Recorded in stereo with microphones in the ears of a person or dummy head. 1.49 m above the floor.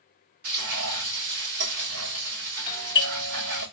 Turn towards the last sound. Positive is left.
turn(degrees=20)  # may be behind; listen again after turning